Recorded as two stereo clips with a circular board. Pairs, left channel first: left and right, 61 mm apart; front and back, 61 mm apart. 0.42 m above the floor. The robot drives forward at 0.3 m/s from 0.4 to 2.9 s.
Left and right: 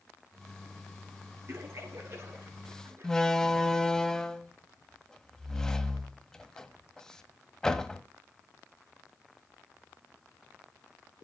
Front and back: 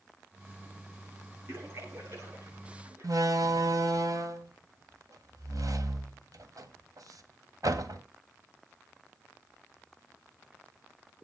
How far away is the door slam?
About 1.4 m.